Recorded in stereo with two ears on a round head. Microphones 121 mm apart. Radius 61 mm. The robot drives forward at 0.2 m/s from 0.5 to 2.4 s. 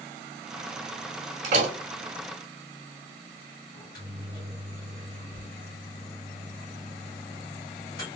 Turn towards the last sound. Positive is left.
turn(degrees=35)  # may be behind; listen again after turning